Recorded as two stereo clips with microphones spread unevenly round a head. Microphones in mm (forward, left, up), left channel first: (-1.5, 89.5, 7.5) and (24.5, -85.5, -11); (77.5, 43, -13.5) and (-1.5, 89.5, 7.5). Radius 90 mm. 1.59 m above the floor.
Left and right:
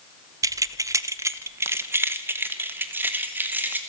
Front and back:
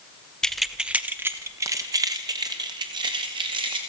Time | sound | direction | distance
0.4 | keys jangling | 135° right | 0.6 m